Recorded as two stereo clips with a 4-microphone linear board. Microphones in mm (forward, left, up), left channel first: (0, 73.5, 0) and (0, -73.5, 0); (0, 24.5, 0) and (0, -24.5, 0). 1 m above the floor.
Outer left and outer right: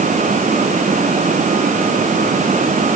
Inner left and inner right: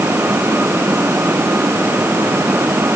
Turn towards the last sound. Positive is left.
No sound to turn to.